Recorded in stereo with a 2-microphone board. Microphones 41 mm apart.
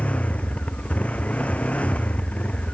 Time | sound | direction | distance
0.0 | a motorcycle | 30° left (ahead or behind) | ?